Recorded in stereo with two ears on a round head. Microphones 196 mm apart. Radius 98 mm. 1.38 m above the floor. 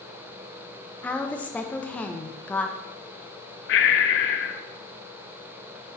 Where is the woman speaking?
5° left (ahead or behind), 0.7 m.